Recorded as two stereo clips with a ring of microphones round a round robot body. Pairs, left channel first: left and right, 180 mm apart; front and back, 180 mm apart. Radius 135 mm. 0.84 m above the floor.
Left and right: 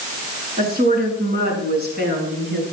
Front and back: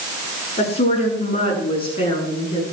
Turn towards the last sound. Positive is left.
turn(degrees=-65)